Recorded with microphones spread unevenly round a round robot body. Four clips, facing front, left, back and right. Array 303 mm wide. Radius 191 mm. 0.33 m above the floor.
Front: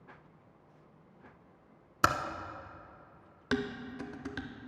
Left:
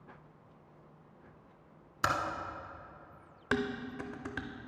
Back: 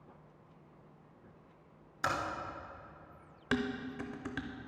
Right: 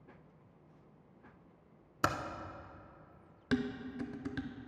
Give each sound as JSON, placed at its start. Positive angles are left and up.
{"t": 2.0, "sound": "typing on a keyboard", "azimuth_deg": 0, "distance_m": 0.9}
{"t": 3.5, "sound": "dishes clattering", "azimuth_deg": 45, "distance_m": 0.5}